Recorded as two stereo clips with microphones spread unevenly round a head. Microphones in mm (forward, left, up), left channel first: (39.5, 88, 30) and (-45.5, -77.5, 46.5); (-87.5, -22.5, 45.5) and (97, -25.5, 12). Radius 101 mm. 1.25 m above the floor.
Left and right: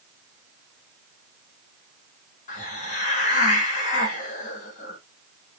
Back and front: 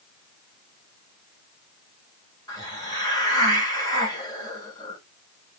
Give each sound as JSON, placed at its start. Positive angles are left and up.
{"t": 2.5, "sound": "a hiss", "azimuth_deg": 115, "distance_m": 1.8}